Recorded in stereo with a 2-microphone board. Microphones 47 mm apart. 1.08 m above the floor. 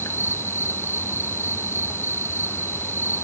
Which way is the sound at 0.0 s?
60° left (ahead or behind).